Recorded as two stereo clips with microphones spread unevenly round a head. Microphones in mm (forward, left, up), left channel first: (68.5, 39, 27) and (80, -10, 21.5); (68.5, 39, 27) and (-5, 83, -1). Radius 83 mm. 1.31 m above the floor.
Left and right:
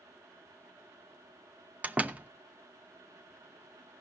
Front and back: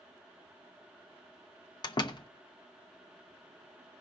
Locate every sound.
1.8 s a door slam: 15° right, 0.9 m